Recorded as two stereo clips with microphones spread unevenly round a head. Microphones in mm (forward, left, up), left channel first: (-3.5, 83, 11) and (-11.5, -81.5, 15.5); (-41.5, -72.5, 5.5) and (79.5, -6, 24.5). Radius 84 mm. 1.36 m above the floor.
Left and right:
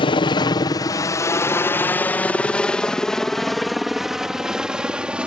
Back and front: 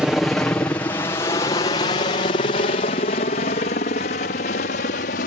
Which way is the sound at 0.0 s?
125° left.